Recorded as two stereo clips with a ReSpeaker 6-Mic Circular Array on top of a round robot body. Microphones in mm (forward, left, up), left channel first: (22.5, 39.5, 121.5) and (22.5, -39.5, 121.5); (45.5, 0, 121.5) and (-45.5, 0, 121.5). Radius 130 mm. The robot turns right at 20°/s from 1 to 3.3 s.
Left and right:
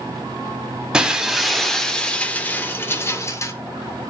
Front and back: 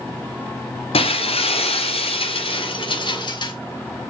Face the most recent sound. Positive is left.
turn(degrees=35)